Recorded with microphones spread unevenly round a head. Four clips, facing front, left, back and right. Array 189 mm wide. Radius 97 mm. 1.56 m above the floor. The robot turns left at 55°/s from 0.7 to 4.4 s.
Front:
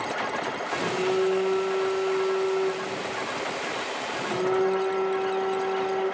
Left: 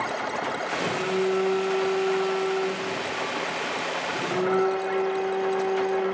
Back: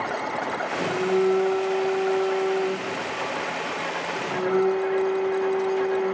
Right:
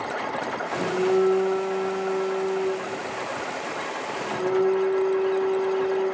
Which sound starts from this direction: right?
A phone buzzing, at 0.7 s.